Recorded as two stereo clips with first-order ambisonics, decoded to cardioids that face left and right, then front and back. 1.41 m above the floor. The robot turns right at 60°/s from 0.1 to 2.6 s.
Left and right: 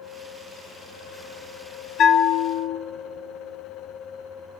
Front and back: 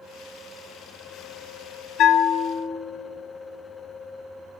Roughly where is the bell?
Ahead left.